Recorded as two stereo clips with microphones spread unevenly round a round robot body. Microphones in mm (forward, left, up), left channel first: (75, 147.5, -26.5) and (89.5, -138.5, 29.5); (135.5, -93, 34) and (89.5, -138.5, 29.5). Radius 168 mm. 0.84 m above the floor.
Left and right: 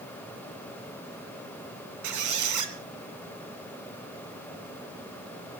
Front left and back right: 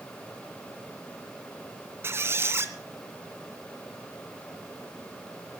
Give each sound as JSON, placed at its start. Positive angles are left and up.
{"t": 2.0, "sound": "a squeak", "azimuth_deg": -80, "distance_m": 2.0}